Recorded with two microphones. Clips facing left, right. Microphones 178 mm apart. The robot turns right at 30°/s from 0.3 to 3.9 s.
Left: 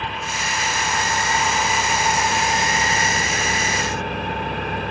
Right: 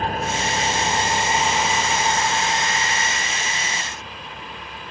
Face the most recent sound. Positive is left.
turn(degrees=65)